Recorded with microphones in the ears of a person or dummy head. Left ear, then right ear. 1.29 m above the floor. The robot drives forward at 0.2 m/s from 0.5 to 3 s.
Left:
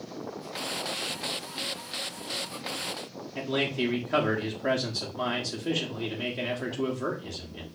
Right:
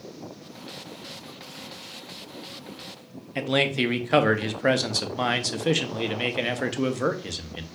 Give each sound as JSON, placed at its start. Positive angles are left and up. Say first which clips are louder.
{"t": 3.4, "sound": "a man speaking", "louder": "right 5 dB", "side_deg": -55, "distance_m": 0.6}